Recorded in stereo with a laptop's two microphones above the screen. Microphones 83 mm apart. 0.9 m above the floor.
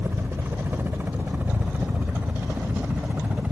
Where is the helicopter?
30° right (ahead or behind); by 3.5 s 15° right (ahead or behind).